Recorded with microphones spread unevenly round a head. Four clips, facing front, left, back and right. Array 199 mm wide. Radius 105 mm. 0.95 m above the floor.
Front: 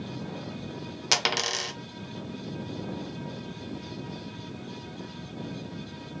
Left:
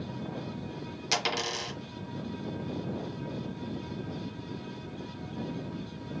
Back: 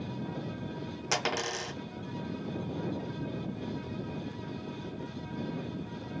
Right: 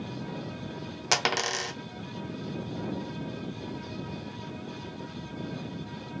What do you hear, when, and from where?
1.1 s a dropped coin: 50° right, 0.7 m